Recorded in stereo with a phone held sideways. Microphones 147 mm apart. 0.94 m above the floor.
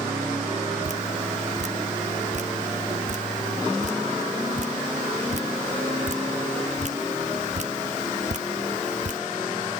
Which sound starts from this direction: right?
Dripping, at 0.8 s.